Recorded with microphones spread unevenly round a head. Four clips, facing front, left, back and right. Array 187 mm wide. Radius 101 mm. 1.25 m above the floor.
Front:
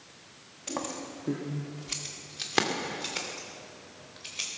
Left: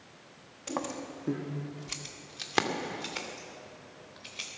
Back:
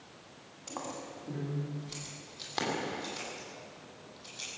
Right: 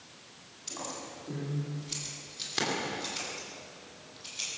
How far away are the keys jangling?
About 1.4 m.